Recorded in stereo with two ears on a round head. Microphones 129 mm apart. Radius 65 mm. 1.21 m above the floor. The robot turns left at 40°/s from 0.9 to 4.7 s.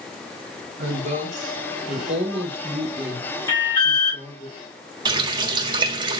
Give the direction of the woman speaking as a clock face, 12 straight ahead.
3 o'clock.